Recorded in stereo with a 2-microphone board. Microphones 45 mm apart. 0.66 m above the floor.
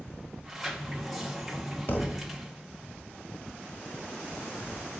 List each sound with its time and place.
0.4 s a sliding door: centre (ahead or behind), 1.1 m
1.9 s a thud: 50° left (ahead or behind), 0.9 m